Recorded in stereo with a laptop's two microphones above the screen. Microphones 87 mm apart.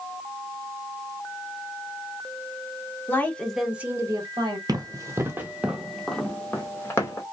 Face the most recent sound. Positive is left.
turn(degrees=35)  # may be behind; listen again after turning